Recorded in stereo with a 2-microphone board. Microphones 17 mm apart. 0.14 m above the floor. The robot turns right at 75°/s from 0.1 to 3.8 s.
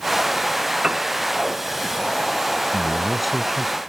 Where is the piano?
55° right (ahead or behind); by 1.1 s 70° right (ahead or behind).